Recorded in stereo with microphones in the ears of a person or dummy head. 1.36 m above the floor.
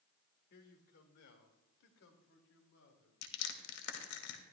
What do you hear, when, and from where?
0.5 s a man speaking: 55° left (ahead or behind), 1.8 m; by 3.1 s 70° left (ahead or behind), 3 m
3.2 s crushing: 80° left, 1.9 m